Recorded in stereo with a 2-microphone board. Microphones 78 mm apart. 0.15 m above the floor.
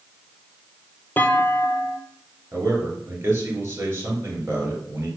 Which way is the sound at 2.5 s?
30° right (ahead or behind).